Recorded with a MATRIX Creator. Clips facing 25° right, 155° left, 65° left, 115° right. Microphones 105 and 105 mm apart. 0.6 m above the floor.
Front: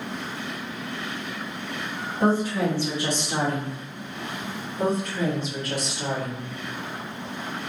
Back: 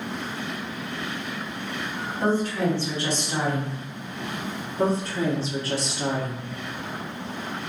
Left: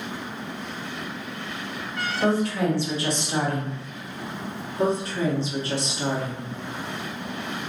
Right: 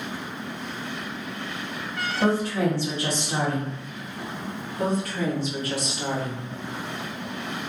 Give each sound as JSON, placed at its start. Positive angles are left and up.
{"t": 2.2, "sound": "a woman speaking", "azimuth_deg": -95, "distance_m": 1.3}
{"t": 4.8, "sound": "a woman speaking", "azimuth_deg": 115, "distance_m": 0.9}